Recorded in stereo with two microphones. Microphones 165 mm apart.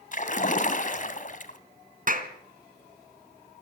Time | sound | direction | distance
0.1 | a splash | 50° left (ahead or behind) | 2 m
2.1 | a clap | 55° right (ahead or behind) | 2.5 m